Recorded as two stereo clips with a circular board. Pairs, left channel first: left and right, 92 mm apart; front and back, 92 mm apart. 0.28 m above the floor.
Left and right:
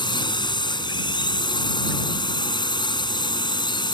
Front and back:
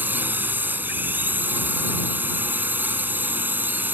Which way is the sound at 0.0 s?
110° left.